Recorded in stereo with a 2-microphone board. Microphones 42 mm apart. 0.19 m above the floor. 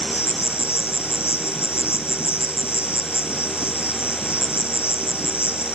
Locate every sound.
0.0 s an insect: 65° left (ahead or behind), 1.7 m